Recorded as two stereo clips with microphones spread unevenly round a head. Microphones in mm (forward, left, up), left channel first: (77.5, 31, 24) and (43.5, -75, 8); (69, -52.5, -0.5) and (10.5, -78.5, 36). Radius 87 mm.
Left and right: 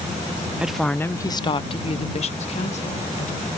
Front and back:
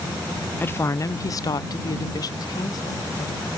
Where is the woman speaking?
25° right; by 3.5 s 60° left.